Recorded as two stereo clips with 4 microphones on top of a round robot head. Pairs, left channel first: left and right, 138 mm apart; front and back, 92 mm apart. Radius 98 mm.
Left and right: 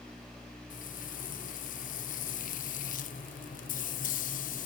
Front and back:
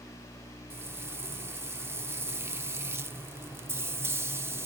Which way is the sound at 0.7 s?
115° left.